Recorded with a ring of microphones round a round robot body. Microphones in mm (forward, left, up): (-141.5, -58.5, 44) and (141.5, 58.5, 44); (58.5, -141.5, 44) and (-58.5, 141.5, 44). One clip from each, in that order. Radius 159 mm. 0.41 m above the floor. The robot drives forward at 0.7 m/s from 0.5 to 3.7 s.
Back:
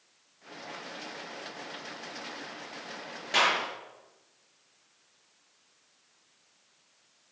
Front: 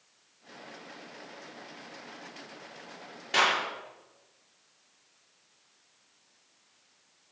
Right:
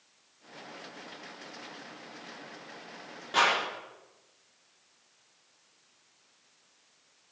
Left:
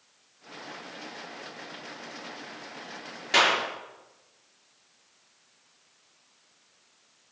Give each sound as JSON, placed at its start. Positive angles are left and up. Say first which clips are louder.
{"t": 3.3, "sound": "a clap", "louder": "even, left 3 dB", "azimuth_deg": 115, "distance_m": 5.5}